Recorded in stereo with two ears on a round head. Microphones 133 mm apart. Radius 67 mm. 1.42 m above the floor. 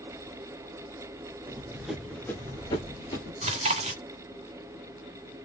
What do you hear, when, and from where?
1.5 s running footsteps: 15° right (ahead or behind), 1.4 m; by 3.3 s 40° left (ahead or behind), 1.8 m
3.4 s chewing: 45° right (ahead or behind), 1.9 m